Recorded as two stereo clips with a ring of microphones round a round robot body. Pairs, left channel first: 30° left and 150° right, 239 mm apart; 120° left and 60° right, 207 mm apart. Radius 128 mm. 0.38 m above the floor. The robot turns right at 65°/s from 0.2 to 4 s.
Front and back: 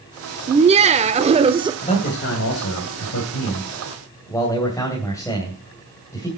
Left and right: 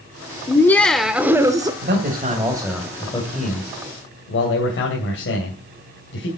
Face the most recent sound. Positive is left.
turn(degrees=105)